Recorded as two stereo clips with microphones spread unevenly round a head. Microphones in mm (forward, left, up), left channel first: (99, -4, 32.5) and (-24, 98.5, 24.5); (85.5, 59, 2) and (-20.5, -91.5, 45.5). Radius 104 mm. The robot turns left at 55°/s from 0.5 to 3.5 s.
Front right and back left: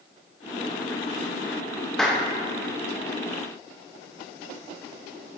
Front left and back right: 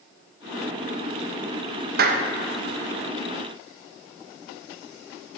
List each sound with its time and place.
2.0 s a clap: 125° right, 0.5 m; by 2.3 s 140° right, 0.5 m